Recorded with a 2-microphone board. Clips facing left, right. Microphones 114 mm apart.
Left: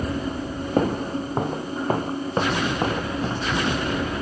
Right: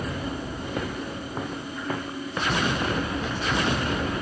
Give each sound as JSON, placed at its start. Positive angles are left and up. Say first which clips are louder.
{"t": 0.8, "sound": "footsteps", "louder": "left 12 dB", "side_deg": 45}